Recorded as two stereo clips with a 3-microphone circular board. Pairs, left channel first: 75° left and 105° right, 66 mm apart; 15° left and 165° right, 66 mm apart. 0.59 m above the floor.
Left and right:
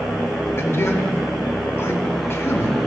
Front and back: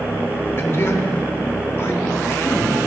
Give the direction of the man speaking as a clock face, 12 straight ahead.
10 o'clock.